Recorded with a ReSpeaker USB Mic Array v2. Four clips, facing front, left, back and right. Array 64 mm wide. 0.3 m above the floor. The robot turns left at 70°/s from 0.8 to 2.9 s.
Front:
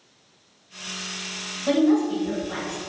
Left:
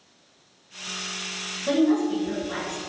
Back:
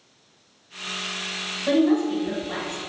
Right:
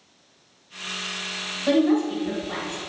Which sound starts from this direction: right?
A woman speaking, at 1.7 s.